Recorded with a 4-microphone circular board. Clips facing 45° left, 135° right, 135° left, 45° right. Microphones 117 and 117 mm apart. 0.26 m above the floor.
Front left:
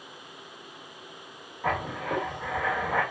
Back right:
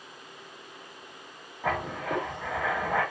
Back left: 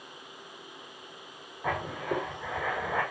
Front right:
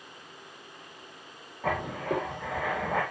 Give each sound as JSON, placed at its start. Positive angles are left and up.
{"t": 1.6, "sound": "writing", "azimuth_deg": -45, "distance_m": 1.3}